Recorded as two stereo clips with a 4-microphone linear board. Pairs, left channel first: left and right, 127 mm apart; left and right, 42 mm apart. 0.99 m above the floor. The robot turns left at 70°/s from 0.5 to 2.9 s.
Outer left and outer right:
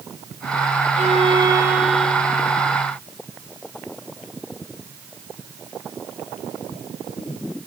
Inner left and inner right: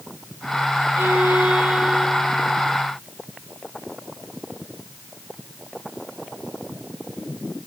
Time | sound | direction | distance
1.0 | a violin | 110° right | 4.5 m